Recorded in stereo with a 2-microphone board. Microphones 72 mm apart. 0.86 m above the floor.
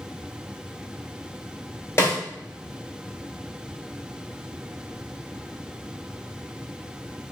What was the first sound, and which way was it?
A snare drum, 35° left (ahead or behind).